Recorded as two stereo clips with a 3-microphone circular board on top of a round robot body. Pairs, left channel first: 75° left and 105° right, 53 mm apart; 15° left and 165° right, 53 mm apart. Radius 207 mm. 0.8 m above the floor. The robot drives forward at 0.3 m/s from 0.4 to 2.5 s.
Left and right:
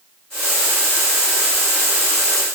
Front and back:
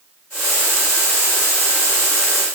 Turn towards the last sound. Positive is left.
No sound to turn to.